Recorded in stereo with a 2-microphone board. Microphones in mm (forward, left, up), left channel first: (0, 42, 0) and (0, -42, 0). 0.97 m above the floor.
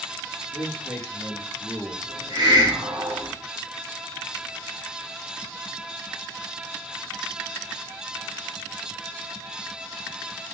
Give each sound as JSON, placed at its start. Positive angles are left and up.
{"t": 0.5, "sound": "a man speaking", "side_deg": -15, "distance_m": 3.0}
{"t": 2.1, "sound": "a hiss", "side_deg": -50, "distance_m": 2.0}